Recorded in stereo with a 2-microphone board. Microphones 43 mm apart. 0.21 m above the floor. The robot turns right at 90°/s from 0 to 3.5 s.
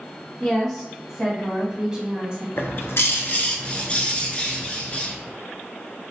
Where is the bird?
65° left, 0.7 m; by 5.1 s 150° left, 0.7 m.